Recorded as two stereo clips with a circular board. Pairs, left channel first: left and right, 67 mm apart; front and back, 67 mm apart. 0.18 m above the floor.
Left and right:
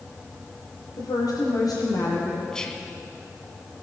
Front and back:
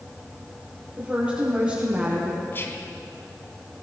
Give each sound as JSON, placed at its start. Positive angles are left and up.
{"t": 1.0, "sound": "a woman speaking", "azimuth_deg": 110, "distance_m": 4.5}
{"t": 2.5, "sound": "whispering", "azimuth_deg": 15, "distance_m": 1.2}